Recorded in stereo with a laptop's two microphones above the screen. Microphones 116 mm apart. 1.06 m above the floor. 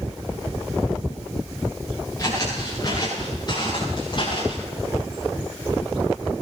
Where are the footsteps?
25° left (ahead or behind), 10 m; by 4.7 s 45° left (ahead or behind), 9.5 m.